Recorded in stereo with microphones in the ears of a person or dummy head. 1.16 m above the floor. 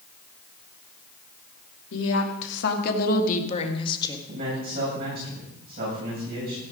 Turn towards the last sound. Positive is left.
turn(degrees=-50)  # may be behind; listen again after turning